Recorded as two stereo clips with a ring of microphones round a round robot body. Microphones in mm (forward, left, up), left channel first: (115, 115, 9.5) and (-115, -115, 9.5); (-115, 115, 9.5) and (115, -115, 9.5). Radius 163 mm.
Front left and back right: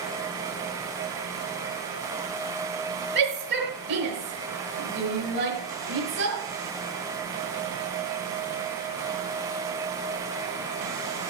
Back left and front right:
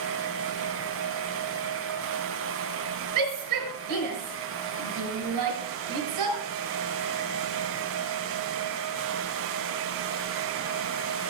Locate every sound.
3.1 s a shout: 75° right, 5.5 m